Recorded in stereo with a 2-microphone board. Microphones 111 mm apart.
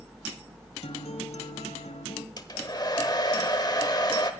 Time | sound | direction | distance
0.8 | a guitar | 60° left (ahead or behind) | 1.4 m
2.4 | a hair dryer | 35° left (ahead or behind) | 1.0 m